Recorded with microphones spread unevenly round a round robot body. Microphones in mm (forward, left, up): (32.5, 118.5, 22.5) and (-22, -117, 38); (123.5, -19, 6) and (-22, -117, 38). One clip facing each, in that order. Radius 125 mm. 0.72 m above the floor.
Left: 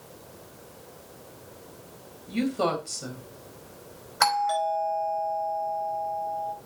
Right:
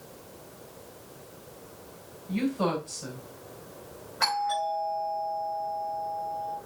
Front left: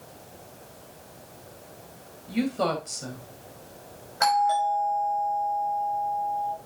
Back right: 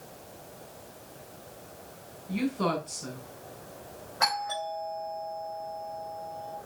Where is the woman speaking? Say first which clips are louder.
Left 1 dB, front left 3 dB; 50° left, 3.5 m.